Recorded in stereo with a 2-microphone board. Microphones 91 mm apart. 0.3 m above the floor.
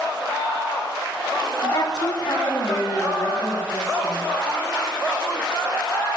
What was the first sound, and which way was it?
A woman speaking, 55° left (ahead or behind).